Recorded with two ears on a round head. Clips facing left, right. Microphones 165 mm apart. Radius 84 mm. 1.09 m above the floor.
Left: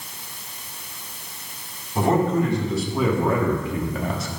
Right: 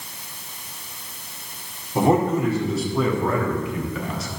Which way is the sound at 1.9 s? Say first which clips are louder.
Right 1 dB; 15° right (ahead or behind).